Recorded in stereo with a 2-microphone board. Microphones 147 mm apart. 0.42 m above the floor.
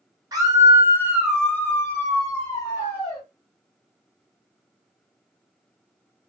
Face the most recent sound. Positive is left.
turn(degrees=35)  # may be behind; listen again after turning